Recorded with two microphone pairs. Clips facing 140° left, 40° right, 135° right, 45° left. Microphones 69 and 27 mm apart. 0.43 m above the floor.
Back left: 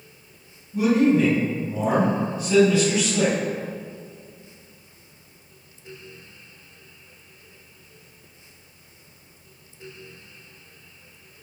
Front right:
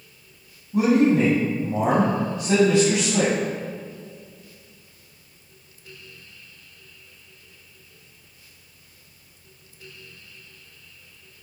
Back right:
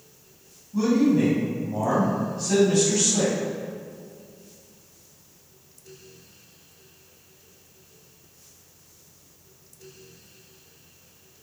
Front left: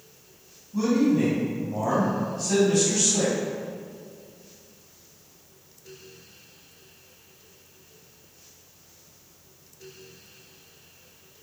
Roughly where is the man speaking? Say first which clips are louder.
Front right 1 dB, back right 2 dB; ahead right.